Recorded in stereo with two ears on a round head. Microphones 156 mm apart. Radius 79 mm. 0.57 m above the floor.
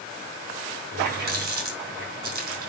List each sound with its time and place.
0.9 s a running tap: 55° right (ahead or behind), 4 m